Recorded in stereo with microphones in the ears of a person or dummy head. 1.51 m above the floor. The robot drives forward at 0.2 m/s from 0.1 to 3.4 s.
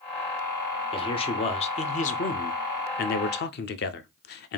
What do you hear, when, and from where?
0.9 s a man speaking: 30° left (ahead or behind), 0.7 m; by 4.6 s 50° left (ahead or behind), 0.5 m